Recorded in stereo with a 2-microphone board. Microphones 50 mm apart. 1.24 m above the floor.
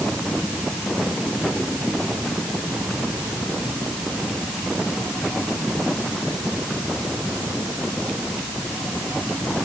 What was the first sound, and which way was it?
Only background noise.